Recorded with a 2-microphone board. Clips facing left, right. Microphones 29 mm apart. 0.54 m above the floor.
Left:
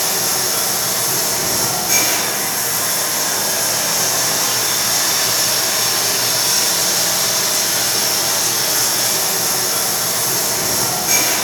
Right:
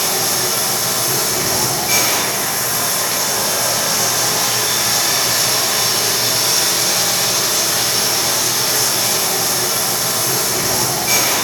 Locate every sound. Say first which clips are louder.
0.0 s running water: right 1 dB; 40° right (ahead or behind), 0.8 m